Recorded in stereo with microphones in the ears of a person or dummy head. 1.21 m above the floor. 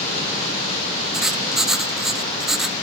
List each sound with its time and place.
1.1 s writing: centre (ahead or behind), 0.8 m